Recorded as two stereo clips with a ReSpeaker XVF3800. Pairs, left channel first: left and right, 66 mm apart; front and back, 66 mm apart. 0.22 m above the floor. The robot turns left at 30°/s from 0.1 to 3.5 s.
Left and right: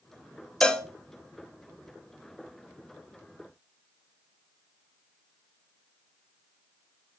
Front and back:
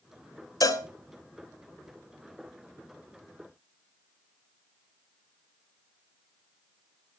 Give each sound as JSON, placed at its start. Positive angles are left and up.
{"t": 0.6, "sound": "a cowbell", "azimuth_deg": 15, "distance_m": 0.5}